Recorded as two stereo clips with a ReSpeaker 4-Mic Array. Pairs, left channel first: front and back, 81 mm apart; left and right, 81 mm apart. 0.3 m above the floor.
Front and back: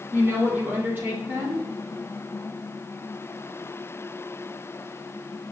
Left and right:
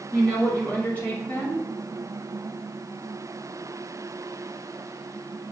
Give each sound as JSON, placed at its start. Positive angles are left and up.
{"t": 0.1, "sound": "a woman speaking", "azimuth_deg": 145, "distance_m": 1.4}